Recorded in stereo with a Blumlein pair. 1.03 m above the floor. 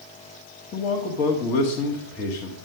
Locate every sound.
0.7 s a man speaking: 30° left, 1.6 m